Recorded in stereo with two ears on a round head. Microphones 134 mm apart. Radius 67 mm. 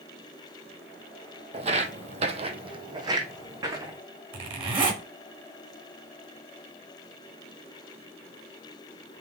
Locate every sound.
1.5 s footsteps: 40° right (ahead or behind), 1.1 m; by 4.0 s 20° right (ahead or behind), 2.5 m
4.3 s a zipper: 35° right (ahead or behind), 2.5 m